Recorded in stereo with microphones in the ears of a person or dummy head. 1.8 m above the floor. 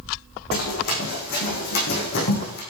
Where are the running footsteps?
55° left (ahead or behind), 6 m.